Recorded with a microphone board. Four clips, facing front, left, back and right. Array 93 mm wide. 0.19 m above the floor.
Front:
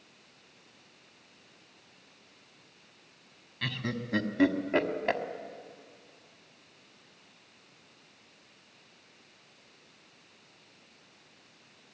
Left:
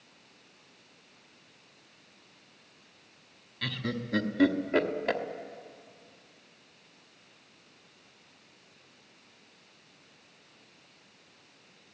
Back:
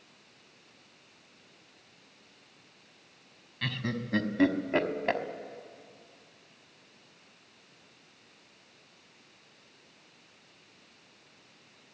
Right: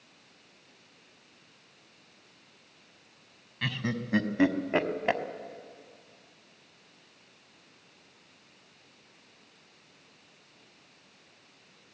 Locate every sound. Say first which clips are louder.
3.6 s laughter: right 2 dB, back 1 dB; 95° right, 1.0 m